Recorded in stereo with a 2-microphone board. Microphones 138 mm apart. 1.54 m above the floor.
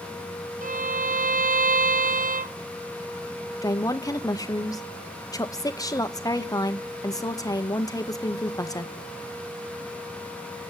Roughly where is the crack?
No crack in this recording.